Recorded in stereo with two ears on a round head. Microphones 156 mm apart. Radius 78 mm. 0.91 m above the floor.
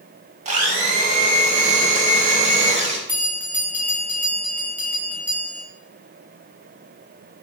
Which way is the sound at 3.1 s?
10° right (ahead or behind).